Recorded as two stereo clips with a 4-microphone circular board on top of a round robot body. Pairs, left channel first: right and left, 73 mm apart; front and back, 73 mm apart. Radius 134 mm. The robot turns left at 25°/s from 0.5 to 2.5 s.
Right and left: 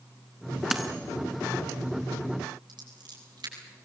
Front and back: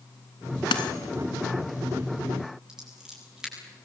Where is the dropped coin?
5° left, 0.9 m; by 0.9 s straight ahead, 0.9 m.